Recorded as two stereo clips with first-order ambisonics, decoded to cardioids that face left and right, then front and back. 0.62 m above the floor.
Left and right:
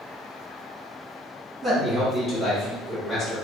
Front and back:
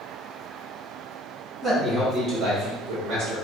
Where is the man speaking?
110° right, 1.0 m; by 3.4 s 165° right, 1.7 m.